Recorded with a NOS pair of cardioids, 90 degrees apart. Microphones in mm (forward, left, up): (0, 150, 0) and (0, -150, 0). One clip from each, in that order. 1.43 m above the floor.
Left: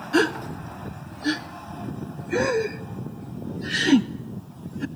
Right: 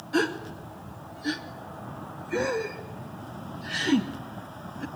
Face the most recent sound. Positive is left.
turn(degrees=30)